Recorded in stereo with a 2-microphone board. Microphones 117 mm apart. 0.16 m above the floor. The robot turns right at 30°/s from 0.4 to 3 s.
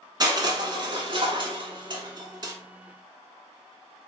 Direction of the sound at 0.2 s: 40° right (ahead or behind).